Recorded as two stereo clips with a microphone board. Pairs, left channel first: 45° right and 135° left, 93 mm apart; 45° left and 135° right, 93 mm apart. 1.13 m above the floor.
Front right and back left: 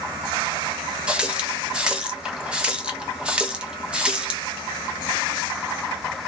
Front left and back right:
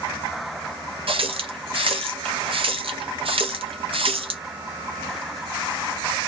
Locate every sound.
1.1 s a running tap: 145° right, 0.7 m